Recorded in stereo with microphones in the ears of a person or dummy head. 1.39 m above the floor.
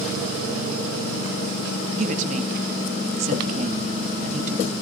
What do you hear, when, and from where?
1.9 s a woman speaking: 40° right (ahead or behind), 2 m